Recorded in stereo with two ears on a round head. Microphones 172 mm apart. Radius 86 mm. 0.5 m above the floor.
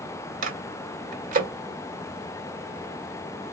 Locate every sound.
0.4 s a microwave: 45° right (ahead or behind), 1.6 m